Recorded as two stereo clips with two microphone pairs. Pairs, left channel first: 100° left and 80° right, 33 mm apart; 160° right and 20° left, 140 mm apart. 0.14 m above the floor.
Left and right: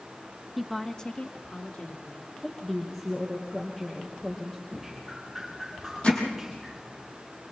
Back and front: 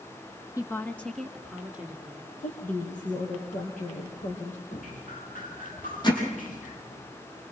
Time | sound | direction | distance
0.6 | a woman speaking | 155° right | 1.1 m
2.4 | a woman speaking | 175° right | 4.5 m
4.7 | dripping | 175° right | 6.5 m
6.0 | hammering | 145° left | 5 m